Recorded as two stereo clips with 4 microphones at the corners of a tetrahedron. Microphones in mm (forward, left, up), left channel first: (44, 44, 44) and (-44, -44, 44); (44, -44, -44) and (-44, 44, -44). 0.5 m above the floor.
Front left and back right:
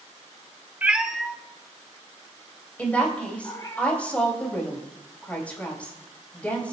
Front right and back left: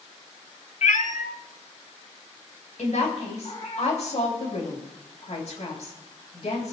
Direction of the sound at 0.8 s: 60° right.